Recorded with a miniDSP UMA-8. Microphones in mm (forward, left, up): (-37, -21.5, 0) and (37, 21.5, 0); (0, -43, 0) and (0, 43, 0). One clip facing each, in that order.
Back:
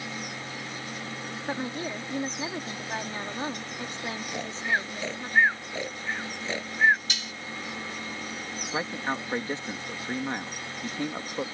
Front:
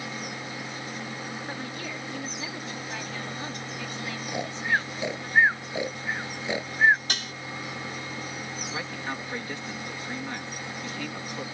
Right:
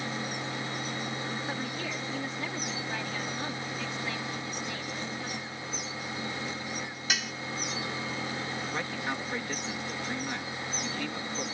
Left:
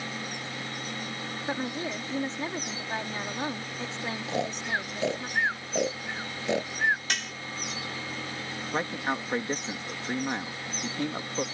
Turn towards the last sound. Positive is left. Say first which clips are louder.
# back 6 dB, left 7 dB
turn(degrees=150)